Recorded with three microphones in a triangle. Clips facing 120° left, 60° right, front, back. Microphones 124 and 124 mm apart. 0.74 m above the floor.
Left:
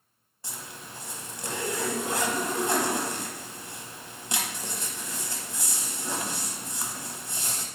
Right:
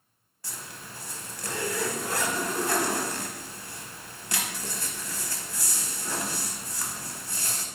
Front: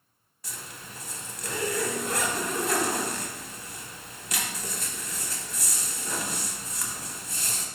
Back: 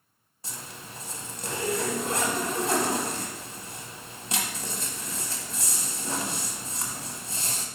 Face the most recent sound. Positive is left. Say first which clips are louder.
# left 1 dB, back 1 dB
turn(degrees=165)